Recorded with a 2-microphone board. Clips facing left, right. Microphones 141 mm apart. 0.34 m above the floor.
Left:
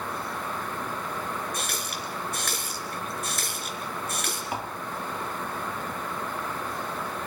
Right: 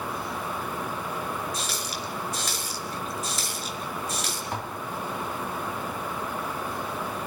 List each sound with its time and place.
1.5 s a running tap: 60° left (ahead or behind), 4 m
4.5 s tapping: 10° left (ahead or behind), 2.5 m